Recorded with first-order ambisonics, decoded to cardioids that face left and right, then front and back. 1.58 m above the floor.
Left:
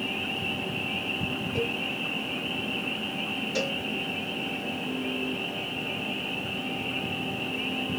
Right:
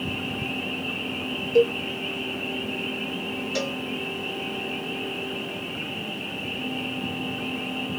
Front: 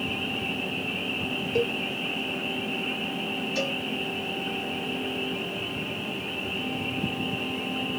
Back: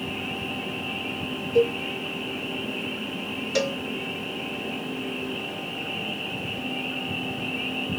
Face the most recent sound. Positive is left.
turn(degrees=-170)